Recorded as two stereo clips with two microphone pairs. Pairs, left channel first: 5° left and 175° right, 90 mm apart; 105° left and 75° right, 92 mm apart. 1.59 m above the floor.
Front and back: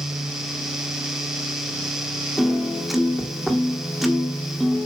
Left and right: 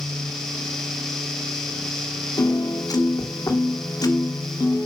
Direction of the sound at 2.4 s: 100° left.